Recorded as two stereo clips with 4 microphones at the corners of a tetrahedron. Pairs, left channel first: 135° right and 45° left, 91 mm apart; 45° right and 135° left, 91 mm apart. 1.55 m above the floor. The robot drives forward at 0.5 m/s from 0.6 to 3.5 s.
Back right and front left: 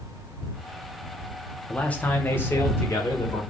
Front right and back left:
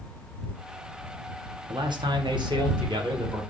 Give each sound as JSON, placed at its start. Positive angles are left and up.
{"t": 1.7, "sound": "a man speaking", "azimuth_deg": 150, "distance_m": 0.7}